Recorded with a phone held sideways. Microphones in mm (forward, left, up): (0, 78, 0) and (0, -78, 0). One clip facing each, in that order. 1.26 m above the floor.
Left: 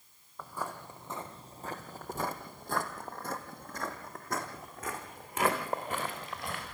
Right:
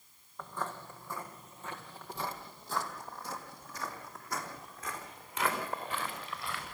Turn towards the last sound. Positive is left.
turn(degrees=45)  # may be behind; listen again after turning